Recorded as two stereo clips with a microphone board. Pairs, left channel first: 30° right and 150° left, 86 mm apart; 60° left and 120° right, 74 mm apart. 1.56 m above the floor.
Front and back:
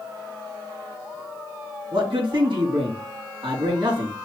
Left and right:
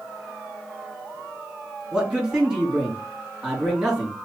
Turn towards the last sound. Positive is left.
turn(degrees=165)